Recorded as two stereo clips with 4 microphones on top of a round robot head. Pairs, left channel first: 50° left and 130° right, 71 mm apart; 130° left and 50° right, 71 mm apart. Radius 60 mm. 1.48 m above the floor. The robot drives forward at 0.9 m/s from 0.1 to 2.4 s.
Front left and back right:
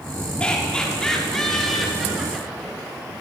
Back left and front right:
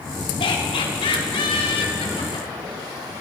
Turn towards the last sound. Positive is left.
turn(degrees=140)